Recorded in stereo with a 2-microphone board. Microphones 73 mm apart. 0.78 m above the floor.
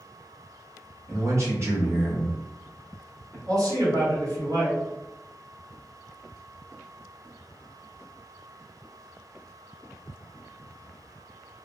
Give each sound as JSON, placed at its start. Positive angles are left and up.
{"t": 1.1, "sound": "a man speaking", "side_deg": -50, "distance_m": 1.4}
{"t": 3.5, "sound": "a man speaking", "side_deg": -50, "distance_m": 1.5}